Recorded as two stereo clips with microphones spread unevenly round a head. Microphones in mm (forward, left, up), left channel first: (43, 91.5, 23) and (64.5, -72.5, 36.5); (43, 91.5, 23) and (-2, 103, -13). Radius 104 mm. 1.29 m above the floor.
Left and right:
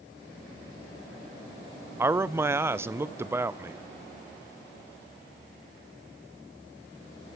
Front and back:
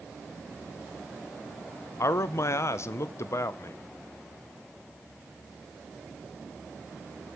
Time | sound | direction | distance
2.0 | a man speaking | 5° right | 0.5 m